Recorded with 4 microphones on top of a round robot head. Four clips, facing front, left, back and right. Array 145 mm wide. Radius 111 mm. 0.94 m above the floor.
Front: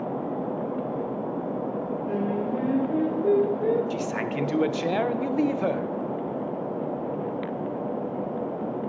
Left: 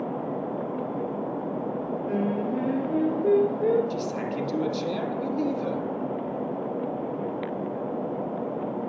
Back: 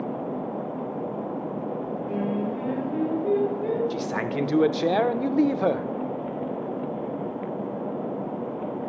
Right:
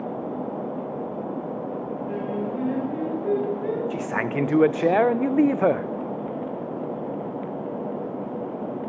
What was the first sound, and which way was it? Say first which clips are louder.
Singing: left 2 dB, even; 50° left.